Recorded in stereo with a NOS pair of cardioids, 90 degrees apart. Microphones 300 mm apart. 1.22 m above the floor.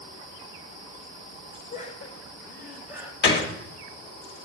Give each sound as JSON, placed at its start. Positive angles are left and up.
{"t": 1.7, "sound": "laughter", "azimuth_deg": 40, "distance_m": 1.9}
{"t": 3.2, "sound": "a gunshot", "azimuth_deg": 30, "distance_m": 1.6}